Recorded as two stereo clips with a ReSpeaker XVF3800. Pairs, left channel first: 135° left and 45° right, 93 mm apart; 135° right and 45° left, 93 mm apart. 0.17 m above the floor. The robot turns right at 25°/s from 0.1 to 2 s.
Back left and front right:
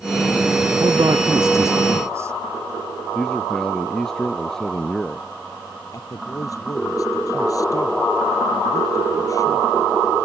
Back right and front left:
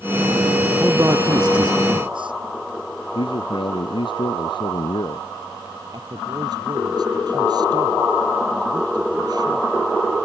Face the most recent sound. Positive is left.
turn(degrees=85)